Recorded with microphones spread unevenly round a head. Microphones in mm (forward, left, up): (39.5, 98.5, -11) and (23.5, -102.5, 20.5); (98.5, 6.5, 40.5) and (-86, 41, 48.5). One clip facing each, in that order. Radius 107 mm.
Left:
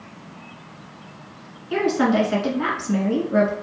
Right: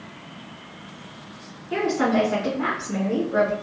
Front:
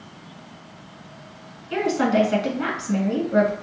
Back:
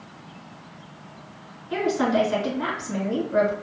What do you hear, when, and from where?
1.7 s a woman speaking: 45° left, 1.5 m